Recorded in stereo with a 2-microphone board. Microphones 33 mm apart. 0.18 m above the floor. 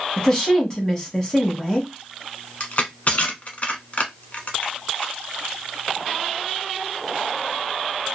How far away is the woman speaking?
About 1.2 m.